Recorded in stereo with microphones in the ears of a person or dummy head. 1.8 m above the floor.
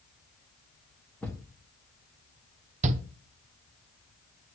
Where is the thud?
Centre (ahead or behind), 1.4 m.